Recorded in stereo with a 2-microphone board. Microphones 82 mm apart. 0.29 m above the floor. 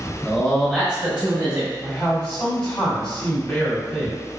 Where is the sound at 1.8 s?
10° left (ahead or behind), 1.2 m.